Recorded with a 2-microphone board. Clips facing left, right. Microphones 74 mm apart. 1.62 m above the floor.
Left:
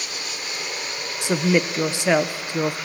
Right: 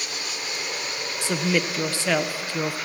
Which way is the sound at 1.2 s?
20° left (ahead or behind).